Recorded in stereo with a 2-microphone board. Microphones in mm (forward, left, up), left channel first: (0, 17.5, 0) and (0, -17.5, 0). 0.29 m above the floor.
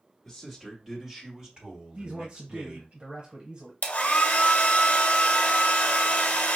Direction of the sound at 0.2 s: 10° left (ahead or behind).